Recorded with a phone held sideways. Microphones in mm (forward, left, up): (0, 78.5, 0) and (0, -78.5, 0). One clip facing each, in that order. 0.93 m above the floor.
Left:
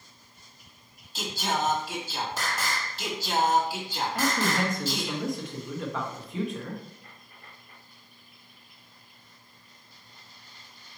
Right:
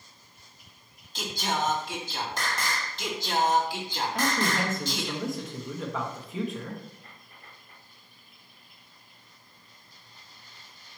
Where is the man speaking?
Centre (ahead or behind), 1.4 m.